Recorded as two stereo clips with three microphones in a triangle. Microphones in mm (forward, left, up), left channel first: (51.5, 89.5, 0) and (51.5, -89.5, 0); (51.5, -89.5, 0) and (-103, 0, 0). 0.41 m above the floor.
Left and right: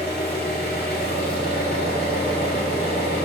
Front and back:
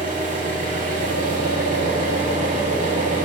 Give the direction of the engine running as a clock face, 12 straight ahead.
8 o'clock.